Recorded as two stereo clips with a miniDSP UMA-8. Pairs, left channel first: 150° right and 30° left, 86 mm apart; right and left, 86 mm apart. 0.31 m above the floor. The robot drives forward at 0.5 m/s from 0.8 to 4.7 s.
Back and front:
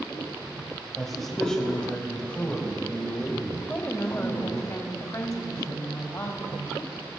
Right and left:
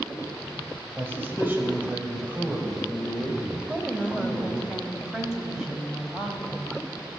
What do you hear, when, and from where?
1.0 s a man speaking: 115° left, 1.5 m; by 4.6 s 165° left, 2.5 m
3.6 s a woman speaking: 165° left, 1.0 m; by 7.1 s 170° left, 1.4 m